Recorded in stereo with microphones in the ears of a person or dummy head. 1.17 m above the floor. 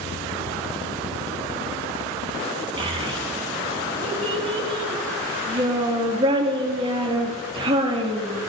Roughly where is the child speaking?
Right.